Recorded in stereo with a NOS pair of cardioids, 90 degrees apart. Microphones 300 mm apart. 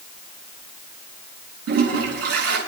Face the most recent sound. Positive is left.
turn(degrees=-55)